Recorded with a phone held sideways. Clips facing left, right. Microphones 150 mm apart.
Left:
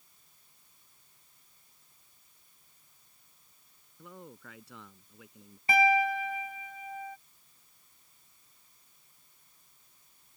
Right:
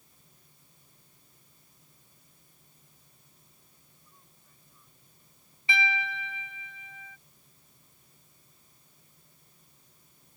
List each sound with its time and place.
0.0 s a fan: 55° right (ahead or behind)
4.0 s a man speaking: 85° left
5.7 s a piano: 45° left (ahead or behind)